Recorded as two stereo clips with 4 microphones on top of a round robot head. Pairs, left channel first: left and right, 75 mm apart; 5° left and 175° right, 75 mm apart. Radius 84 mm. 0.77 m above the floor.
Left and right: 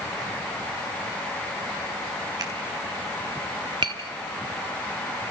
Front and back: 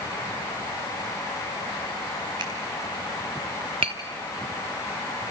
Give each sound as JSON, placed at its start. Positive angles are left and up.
{"t": 2.4, "sound": "a finger snap", "azimuth_deg": -145, "distance_m": 4.5}
{"t": 3.8, "sound": "tapping", "azimuth_deg": -140, "distance_m": 0.7}